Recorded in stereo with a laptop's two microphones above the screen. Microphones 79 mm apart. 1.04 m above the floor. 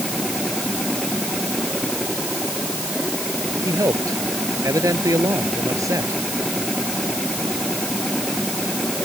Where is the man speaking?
45° right (ahead or behind).